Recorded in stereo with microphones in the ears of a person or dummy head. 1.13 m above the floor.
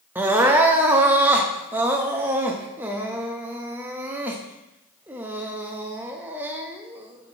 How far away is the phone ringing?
I don't hear a phone ringing.